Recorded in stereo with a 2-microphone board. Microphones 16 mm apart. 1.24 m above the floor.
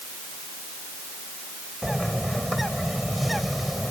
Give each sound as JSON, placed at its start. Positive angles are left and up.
{"t": 1.8, "sound": "a bird", "side_deg": -5}